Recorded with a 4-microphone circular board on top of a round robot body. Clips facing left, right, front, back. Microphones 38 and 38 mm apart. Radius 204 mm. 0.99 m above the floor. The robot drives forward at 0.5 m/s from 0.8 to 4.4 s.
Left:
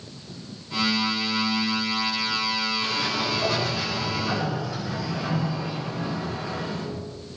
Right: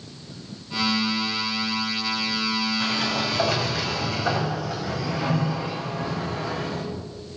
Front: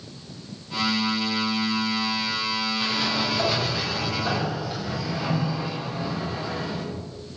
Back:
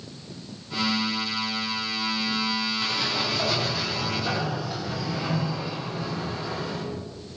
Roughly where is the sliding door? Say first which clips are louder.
Right 1 dB, front 2 dB; right.